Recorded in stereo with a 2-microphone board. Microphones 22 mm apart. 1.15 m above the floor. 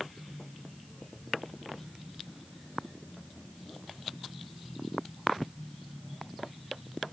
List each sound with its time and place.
Only background noise.